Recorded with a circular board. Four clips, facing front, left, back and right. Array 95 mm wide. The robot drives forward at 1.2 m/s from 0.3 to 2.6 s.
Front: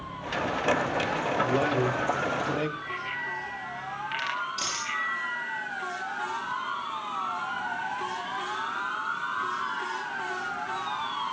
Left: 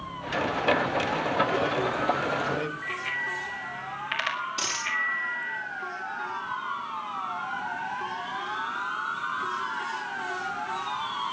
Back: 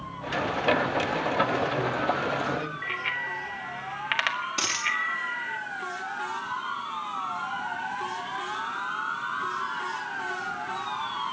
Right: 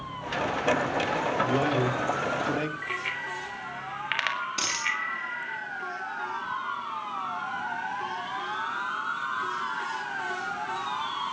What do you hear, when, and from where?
1.4 s a man speaking: 50° right, 6 m; by 2.7 s 65° right, 5.5 m
2.8 s a bicycle bell: 145° right, 4 m
4.6 s a dropped coin: 150° right, 6.5 m